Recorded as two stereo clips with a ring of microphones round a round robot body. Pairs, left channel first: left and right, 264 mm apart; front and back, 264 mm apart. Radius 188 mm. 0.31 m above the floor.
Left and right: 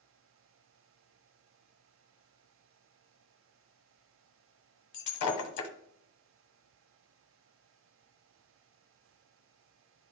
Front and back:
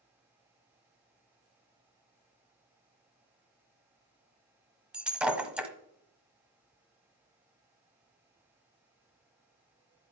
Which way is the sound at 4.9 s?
95° left.